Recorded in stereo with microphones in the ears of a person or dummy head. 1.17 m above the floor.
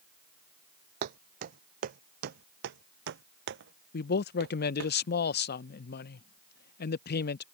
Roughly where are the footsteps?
Right.